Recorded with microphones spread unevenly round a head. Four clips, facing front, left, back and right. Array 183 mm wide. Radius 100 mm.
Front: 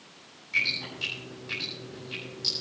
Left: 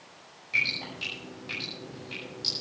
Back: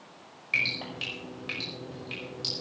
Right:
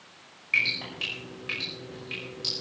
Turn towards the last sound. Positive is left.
turn(degrees=175)